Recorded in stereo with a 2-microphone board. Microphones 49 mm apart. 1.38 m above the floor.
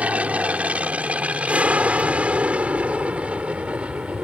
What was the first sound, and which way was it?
An aircraft, 25° right (ahead or behind).